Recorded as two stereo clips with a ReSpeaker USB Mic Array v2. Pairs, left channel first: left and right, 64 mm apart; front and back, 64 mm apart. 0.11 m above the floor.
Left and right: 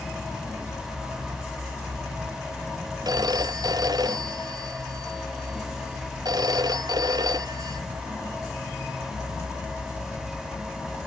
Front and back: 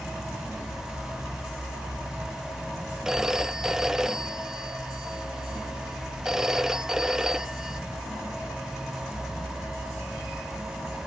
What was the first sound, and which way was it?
A phone ringing, 100° right.